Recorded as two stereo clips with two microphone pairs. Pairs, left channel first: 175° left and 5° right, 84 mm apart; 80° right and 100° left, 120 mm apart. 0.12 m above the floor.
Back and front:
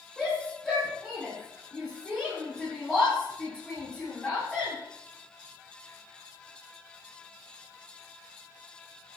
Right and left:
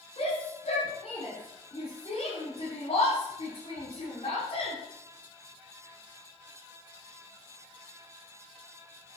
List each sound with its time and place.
0.2 s a shout: 90° right, 6.5 m; by 4.7 s 110° right, 8 m